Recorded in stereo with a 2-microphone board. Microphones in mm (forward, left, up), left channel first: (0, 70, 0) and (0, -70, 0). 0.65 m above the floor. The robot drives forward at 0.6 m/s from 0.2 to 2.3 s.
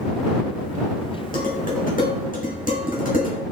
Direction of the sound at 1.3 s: 80° left.